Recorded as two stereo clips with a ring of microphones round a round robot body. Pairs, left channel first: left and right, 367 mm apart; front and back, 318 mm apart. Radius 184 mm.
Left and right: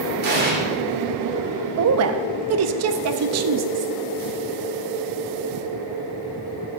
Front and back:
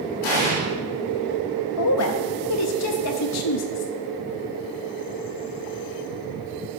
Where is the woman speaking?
45° right, 0.8 m.